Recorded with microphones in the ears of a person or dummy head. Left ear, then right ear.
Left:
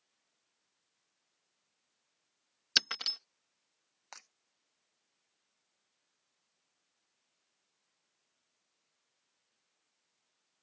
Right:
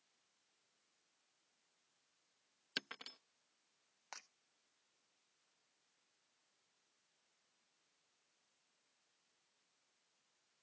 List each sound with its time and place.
2.8 s breaking glass: 50° left (ahead or behind)
4.1 s breaking glass: 5° left (ahead or behind)